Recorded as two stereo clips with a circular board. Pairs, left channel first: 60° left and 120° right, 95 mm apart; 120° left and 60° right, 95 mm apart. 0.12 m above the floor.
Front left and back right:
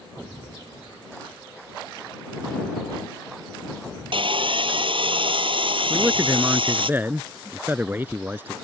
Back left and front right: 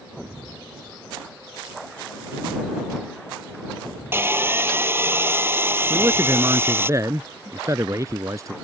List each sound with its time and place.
4.1 s sawing: 120° right
5.9 s a man speaking: 70° right